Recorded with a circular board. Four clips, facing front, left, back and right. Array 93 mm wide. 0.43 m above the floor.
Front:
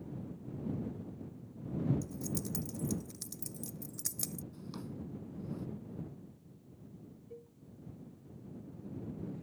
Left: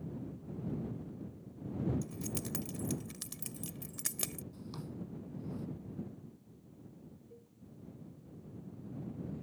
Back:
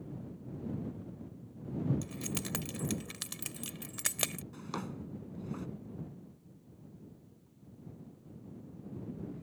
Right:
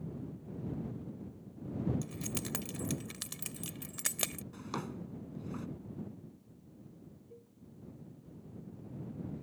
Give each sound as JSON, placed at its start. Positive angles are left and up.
{"t": 2.0, "sound": "keys jangling", "azimuth_deg": -155}
{"t": 4.5, "sound": "a drawer", "azimuth_deg": -135}
{"t": 7.3, "sound": "a cowbell", "azimuth_deg": -5}